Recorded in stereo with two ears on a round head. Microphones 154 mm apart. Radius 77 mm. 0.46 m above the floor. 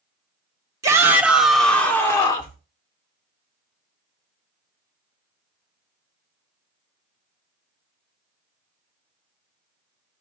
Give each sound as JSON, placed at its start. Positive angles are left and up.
{"t": 0.8, "sound": "a shout", "side_deg": -20, "distance_m": 1.2}